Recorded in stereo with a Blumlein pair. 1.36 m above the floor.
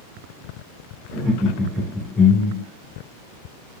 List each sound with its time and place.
1.1 s laughter: 25° right, 1.1 m; by 2.7 s 70° left, 0.6 m